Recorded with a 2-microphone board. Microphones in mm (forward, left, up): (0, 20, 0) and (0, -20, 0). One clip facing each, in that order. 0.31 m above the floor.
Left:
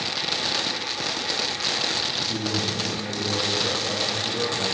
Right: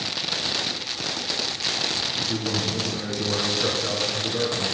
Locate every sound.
2.2 s a man speaking: 45° right (ahead or behind), 4 m